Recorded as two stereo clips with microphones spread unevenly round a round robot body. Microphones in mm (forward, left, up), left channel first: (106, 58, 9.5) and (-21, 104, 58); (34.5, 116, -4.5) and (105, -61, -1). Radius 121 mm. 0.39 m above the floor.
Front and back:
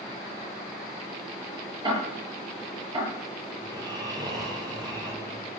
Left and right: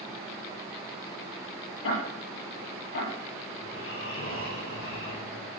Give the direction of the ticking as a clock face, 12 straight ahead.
9 o'clock.